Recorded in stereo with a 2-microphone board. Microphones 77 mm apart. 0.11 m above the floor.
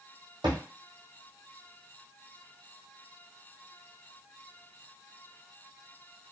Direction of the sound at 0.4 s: 70° right (ahead or behind).